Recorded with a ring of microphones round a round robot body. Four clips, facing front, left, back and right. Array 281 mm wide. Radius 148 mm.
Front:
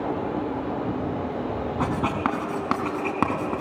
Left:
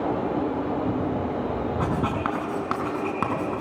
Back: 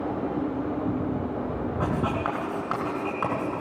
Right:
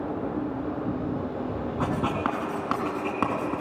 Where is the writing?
Straight ahead, 4 m.